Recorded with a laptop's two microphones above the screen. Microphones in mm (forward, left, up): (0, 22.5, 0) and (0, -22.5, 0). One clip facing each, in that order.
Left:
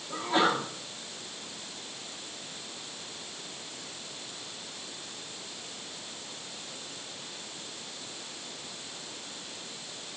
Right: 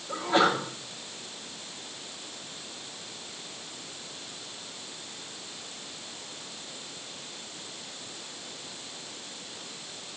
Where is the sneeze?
75° right (ahead or behind), 6 m.